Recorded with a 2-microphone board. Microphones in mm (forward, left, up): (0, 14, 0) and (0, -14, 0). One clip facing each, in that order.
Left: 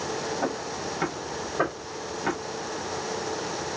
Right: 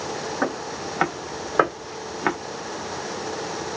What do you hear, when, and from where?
0.4 s footsteps: 85° right, 1.5 m; by 2.4 s 35° right (ahead or behind), 0.8 m